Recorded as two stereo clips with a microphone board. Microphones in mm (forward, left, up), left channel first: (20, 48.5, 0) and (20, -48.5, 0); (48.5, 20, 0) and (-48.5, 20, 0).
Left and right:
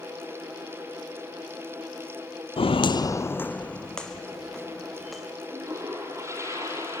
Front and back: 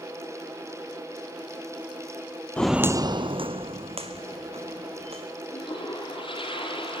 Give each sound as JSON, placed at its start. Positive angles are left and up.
{"t": 2.6, "sound": "footsteps", "azimuth_deg": 75, "distance_m": 0.6}
{"t": 5.5, "sound": "a toilet flushing", "azimuth_deg": -30, "distance_m": 6.0}